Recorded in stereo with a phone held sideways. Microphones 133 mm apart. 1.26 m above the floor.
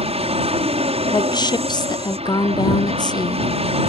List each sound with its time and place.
0.0 s an aircraft: 50° right (ahead or behind)
1.1 s a woman speaking: 35° left (ahead or behind)